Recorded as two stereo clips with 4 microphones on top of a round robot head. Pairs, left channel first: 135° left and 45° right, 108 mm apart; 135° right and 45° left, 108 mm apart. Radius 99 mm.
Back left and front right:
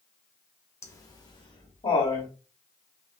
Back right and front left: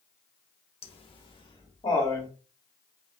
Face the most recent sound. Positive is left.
turn(degrees=170)